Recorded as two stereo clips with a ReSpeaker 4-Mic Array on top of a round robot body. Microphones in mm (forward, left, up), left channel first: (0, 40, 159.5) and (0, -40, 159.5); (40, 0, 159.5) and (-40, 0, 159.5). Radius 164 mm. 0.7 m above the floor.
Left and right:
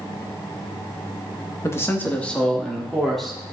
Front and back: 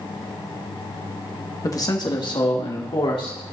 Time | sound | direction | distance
1.6 | a man speaking | 40° left | 1.5 m